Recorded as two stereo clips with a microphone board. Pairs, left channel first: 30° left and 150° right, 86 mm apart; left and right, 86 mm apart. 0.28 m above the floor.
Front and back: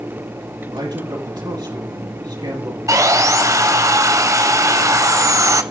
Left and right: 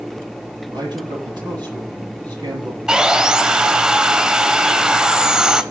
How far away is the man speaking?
About 7.5 m.